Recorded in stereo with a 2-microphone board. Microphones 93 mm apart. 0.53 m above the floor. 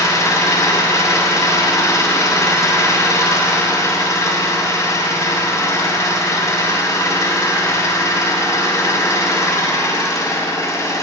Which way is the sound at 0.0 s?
35° left (ahead or behind).